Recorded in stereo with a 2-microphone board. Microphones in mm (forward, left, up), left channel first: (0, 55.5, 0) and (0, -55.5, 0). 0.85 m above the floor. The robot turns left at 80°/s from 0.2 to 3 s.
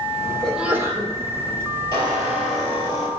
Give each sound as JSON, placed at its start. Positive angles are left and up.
{"t": 0.4, "sound": "a sneeze", "azimuth_deg": 10, "distance_m": 2.5}
{"t": 1.9, "sound": "a squeak", "azimuth_deg": -135, "distance_m": 4.0}